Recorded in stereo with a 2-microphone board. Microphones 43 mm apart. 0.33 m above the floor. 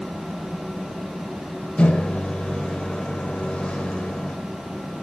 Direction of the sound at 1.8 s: 25° left (ahead or behind).